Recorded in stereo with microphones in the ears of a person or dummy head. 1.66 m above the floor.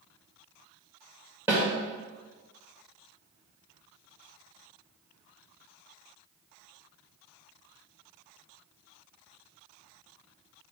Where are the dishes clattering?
No dishes clattering in this recording.